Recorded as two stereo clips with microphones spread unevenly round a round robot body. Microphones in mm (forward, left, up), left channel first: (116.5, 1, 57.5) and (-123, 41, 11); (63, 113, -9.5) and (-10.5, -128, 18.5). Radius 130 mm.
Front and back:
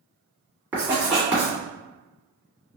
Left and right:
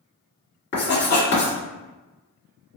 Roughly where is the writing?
Left.